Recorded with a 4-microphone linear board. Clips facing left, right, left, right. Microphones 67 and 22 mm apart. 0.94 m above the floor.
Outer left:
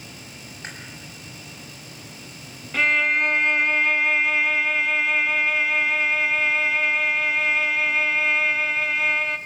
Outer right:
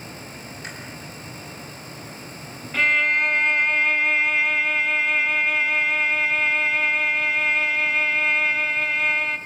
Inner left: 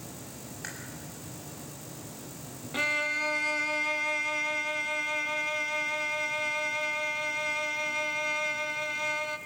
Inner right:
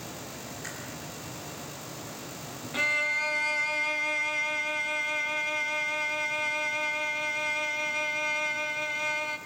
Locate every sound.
0.6 s chewing: 35° left (ahead or behind), 6.5 m
2.7 s a violin: 5° left (ahead or behind), 0.9 m